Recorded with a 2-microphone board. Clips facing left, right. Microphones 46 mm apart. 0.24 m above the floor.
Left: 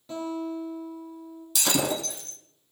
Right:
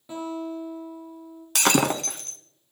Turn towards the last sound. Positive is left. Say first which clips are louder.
# right 5 dB
turn(degrees=-55)  # may be behind; listen again after turning